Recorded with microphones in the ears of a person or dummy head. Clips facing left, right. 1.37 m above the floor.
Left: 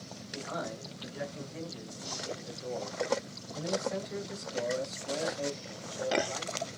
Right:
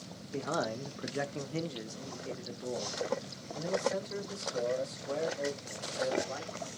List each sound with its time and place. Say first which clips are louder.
0.3 s a man speaking: right 5 dB; 50° right (ahead or behind), 0.6 m; by 6.7 s centre (ahead or behind), 3 m